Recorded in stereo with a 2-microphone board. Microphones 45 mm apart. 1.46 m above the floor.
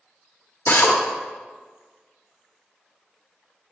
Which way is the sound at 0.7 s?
55° left (ahead or behind).